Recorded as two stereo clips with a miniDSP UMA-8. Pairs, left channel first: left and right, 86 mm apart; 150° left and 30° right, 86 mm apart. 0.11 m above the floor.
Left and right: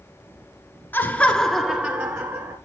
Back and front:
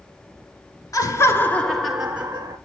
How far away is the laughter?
About 1.6 m.